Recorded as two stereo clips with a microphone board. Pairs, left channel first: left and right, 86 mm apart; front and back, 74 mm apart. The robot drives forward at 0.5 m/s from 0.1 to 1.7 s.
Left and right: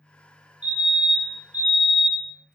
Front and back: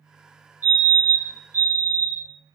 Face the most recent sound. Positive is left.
turn(degrees=-165)